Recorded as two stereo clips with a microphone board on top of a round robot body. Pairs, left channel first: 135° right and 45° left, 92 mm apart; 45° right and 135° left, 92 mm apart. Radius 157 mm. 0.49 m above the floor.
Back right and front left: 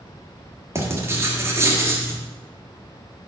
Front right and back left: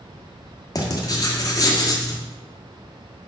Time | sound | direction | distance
0.8 | writing | 10° right | 1.8 m